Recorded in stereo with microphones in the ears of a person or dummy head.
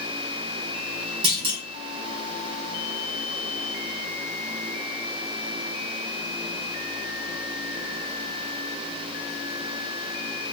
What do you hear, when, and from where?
1.2 s a clunk: 35° right (ahead or behind), 0.8 m